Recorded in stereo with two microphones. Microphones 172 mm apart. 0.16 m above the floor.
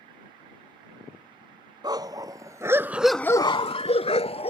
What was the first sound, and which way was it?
A dog barking, 25° right (ahead or behind).